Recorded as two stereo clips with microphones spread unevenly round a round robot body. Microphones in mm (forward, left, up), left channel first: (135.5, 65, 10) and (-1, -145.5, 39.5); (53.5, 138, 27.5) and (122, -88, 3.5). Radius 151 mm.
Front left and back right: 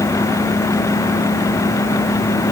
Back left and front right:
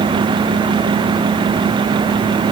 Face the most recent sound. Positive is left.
No sound to turn to.